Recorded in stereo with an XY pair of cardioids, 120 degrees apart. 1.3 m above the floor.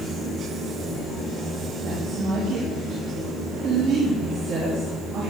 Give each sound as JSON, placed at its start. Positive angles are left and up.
{"t": 0.0, "sound": "a fan", "azimuth_deg": -60, "distance_m": 5.5}
{"t": 1.8, "sound": "a woman speaking", "azimuth_deg": -60, "distance_m": 3.0}